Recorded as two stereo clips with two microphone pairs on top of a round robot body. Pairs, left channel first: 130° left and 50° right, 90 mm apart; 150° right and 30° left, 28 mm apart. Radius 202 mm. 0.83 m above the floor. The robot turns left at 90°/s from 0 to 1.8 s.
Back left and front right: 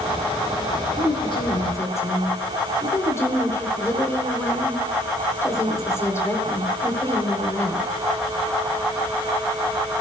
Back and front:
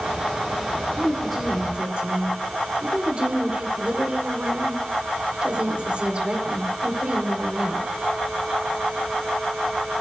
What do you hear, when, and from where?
1.0 s a woman speaking: 150° left, 4 m; by 7.9 s 75° left, 4 m